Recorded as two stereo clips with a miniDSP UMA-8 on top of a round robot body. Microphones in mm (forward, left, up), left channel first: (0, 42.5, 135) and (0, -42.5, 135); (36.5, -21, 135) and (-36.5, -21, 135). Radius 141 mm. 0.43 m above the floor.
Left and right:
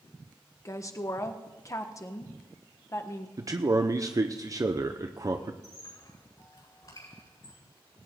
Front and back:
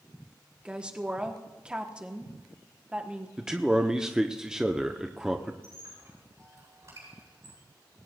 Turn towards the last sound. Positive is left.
turn(degrees=130)